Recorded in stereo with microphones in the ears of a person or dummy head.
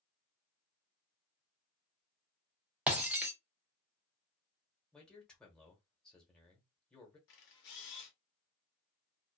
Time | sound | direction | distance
2.9 | breaking glass | 10° right (ahead or behind) | 0.7 m
4.9 | a man speaking | 5° left (ahead or behind) | 0.9 m
7.3 | a camera shutter | 55° left (ahead or behind) | 0.8 m